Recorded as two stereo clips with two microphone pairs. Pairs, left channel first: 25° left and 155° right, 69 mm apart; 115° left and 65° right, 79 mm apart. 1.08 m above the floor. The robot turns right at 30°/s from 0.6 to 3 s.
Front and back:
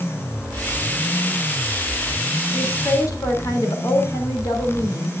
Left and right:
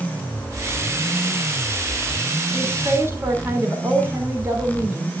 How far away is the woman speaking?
About 3.5 m.